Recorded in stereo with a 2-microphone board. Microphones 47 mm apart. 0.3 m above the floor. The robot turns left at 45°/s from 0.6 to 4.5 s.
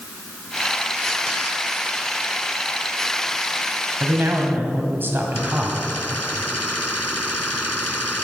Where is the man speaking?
55° right (ahead or behind), 1.9 m; by 5.8 s 45° right (ahead or behind), 1.9 m.